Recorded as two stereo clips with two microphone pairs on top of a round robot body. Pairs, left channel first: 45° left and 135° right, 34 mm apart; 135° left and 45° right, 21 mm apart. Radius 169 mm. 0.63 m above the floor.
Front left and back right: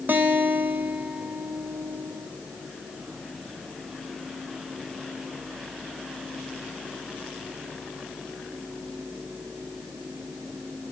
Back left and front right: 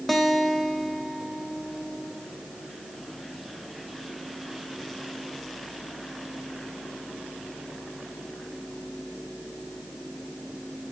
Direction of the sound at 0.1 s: 145° right.